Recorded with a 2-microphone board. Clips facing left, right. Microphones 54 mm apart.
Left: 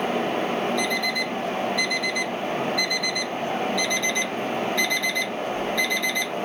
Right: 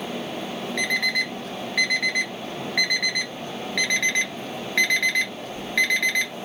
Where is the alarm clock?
60° right (ahead or behind), 2.0 m.